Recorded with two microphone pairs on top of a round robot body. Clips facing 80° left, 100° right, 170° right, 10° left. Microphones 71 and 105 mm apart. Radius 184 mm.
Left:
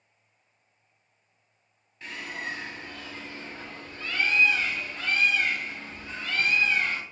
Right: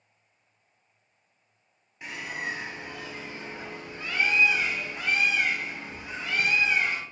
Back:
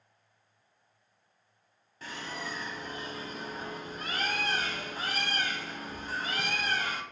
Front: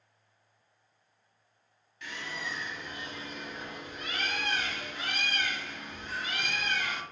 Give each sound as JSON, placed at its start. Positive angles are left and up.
{"t": 2.0, "sound": "a bird", "azimuth_deg": -170, "distance_m": 0.9}